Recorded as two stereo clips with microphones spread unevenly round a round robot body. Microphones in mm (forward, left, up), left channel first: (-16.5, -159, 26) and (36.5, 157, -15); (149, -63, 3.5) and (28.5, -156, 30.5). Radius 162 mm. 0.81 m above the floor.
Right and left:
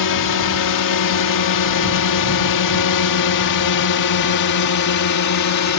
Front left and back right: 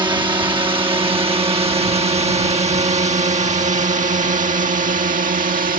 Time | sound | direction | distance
0.0 | a drone | 80° right | ?